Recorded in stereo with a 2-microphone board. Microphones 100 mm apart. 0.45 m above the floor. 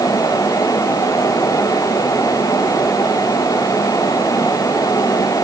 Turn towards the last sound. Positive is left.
No sound to turn to.